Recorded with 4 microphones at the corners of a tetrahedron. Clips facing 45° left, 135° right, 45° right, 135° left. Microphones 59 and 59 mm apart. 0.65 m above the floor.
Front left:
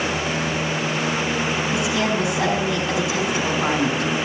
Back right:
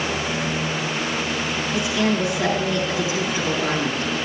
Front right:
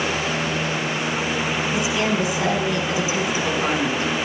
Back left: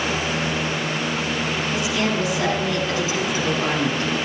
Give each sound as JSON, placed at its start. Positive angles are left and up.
{"t": 1.7, "sound": "a woman speaking", "azimuth_deg": 30, "distance_m": 5.0}